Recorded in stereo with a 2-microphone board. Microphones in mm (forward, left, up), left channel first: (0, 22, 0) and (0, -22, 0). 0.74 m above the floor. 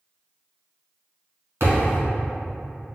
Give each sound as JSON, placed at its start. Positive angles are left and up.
{"t": 1.6, "sound": "a thud", "side_deg": -75, "distance_m": 1.6}